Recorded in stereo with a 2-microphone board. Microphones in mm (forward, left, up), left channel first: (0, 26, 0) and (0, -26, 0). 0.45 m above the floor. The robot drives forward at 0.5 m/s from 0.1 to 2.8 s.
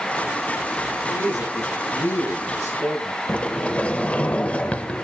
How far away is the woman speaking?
About 7 m.